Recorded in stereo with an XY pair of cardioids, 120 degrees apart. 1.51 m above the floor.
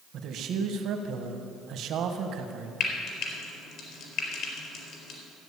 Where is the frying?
65° left, 4 m.